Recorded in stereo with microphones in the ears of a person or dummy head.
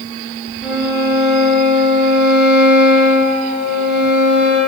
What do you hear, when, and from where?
0.6 s a violin: centre (ahead or behind), 4 m